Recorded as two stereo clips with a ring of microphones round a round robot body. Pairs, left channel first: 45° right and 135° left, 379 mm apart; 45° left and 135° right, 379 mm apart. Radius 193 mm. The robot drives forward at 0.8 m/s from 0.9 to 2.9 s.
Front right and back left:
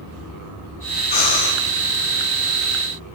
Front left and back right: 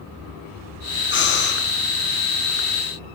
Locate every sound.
1.1 s breathing: 15° right, 6.5 m; by 1.6 s 20° right, 6 m